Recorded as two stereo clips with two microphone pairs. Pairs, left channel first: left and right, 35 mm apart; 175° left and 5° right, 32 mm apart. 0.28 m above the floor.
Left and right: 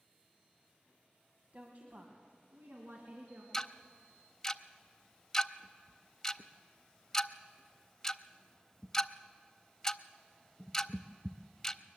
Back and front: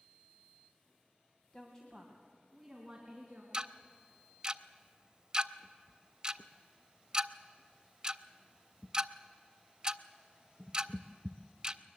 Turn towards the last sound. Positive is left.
turn(degrees=25)